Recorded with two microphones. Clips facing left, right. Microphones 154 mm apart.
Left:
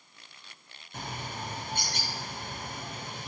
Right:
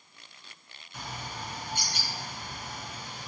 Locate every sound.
0.9 s a bird: 50° left (ahead or behind), 2.5 m